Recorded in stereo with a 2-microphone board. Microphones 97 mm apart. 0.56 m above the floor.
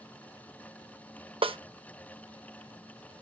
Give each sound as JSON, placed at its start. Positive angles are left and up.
{"t": 1.4, "sound": "a snare drum", "side_deg": -65, "distance_m": 0.5}